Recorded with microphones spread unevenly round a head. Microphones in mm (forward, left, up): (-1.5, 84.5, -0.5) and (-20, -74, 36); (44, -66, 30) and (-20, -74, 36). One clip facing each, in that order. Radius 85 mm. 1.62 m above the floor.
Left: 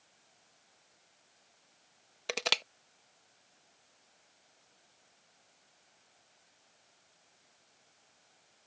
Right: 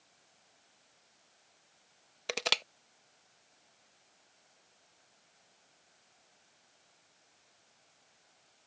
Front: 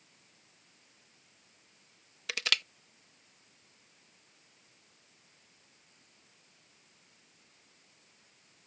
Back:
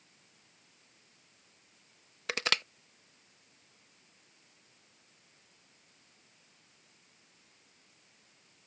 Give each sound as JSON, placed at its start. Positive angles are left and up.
{"t": 2.3, "sound": "crushing", "azimuth_deg": -165}